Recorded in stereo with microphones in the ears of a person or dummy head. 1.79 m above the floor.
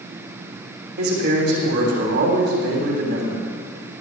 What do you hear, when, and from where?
1.0 s a man speaking: 65° right (ahead or behind), 3 m